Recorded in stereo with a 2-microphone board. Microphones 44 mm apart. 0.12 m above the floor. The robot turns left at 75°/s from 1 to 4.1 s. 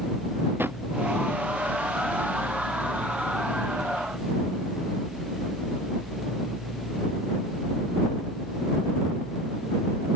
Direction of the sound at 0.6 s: 55° right (ahead or behind).